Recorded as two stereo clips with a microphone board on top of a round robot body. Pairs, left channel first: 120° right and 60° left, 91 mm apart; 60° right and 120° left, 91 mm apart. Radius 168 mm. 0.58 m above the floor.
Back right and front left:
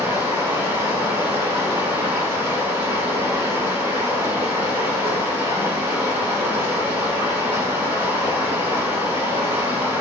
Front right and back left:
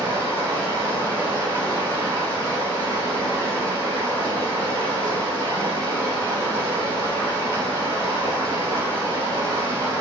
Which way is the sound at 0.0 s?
75° left.